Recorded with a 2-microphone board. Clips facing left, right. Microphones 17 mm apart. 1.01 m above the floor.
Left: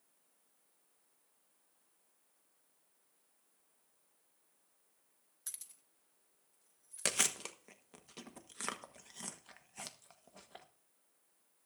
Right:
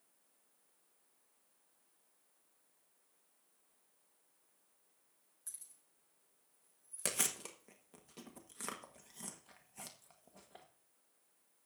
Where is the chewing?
25° left (ahead or behind), 1.2 m.